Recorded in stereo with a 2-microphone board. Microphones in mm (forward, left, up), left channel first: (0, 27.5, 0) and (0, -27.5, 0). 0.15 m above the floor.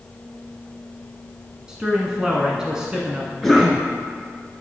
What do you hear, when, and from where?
1.7 s a man speaking: 15° right (ahead or behind), 1.1 m
3.4 s a cough: centre (ahead or behind), 2.5 m